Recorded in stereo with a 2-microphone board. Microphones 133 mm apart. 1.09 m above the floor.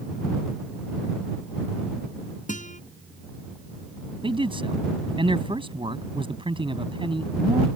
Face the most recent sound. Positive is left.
turn(degrees=-40)  # may be behind; listen again after turning